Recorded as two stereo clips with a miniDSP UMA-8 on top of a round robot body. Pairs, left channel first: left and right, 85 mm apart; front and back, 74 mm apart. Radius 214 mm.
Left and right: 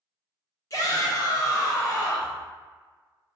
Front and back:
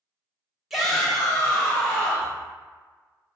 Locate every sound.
0.7 s a shout: 95° left, 1.3 m; by 2.4 s 55° left, 1.6 m